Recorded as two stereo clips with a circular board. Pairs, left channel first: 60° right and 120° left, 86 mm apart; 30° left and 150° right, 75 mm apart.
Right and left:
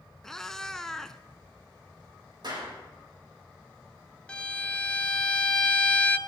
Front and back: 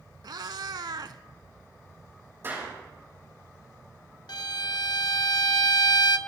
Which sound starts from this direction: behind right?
A cat meowing, at 0.2 s.